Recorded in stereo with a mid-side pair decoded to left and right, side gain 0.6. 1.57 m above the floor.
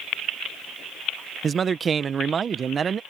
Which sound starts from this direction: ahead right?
A man speaking, at 1.4 s.